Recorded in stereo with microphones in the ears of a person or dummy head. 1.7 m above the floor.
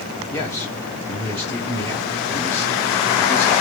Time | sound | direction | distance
0.3 | a man speaking | 15° left (ahead or behind) | 1.0 m